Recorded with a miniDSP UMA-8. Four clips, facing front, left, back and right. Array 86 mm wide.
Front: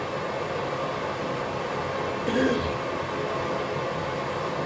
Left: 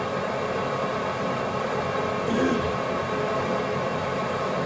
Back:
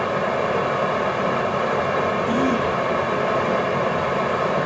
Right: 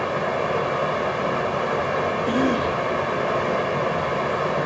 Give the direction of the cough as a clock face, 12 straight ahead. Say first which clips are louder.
Right 1 dB, back 4 dB; 1 o'clock.